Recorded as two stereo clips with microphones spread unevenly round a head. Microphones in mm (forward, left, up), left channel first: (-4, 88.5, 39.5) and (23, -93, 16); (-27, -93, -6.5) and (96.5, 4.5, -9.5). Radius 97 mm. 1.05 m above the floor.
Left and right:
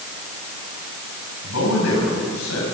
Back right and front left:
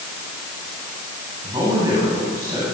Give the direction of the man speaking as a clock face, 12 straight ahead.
8 o'clock.